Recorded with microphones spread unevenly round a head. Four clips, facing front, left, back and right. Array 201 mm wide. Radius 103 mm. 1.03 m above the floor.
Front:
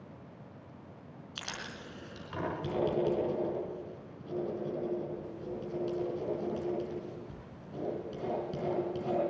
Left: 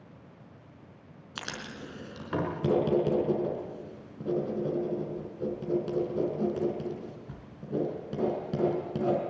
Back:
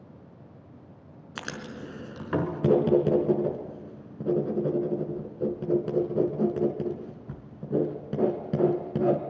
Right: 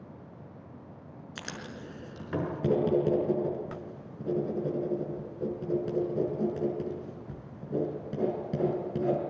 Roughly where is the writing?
Behind.